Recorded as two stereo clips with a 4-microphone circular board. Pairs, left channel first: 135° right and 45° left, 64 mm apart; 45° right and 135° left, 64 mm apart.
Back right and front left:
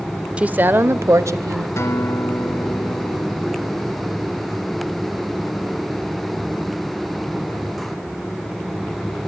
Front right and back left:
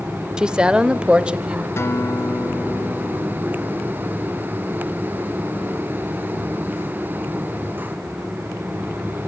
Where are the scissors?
I don't hear scissors.